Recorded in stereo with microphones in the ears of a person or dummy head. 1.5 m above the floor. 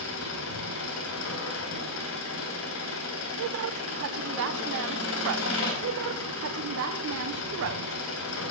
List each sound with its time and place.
0.0 s an engine running: 70° left (ahead or behind), 3 m
3.4 s a woman speaking: 65° right (ahead or behind), 0.7 m
5.8 s a woman speaking: 75° right (ahead or behind), 1.0 m